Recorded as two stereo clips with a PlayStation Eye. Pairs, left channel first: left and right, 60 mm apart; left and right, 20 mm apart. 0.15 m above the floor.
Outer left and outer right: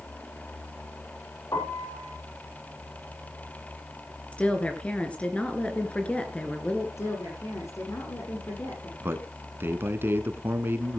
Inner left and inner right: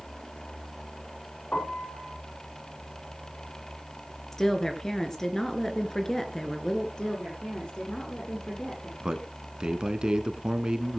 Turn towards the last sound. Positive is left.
turn(degrees=-40)  # may be behind; listen again after turning